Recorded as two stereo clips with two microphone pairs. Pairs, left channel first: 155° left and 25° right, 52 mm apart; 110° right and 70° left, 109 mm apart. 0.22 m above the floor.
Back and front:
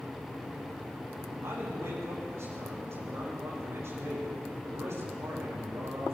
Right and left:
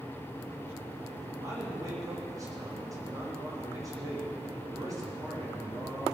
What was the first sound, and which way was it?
A man speaking, 10° left.